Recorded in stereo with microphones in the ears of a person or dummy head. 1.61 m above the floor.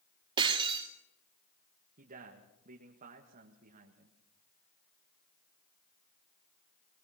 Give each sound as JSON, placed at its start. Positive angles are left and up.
{"t": 0.4, "sound": "breaking glass", "side_deg": -25, "distance_m": 1.9}
{"t": 2.0, "sound": "a man speaking", "side_deg": -45, "distance_m": 1.6}